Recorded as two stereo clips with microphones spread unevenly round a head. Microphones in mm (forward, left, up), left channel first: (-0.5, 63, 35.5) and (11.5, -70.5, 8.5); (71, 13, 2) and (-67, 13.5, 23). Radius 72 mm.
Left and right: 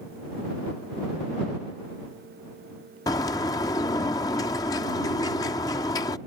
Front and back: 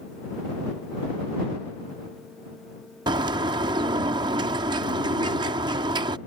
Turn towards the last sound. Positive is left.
turn(degrees=140)